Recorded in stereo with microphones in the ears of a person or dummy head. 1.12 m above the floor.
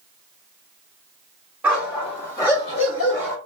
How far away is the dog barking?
About 1.1 m.